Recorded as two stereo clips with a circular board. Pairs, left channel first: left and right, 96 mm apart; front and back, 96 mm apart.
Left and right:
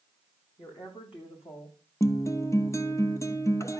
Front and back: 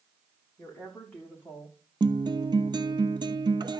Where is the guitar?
145° left, 0.7 m.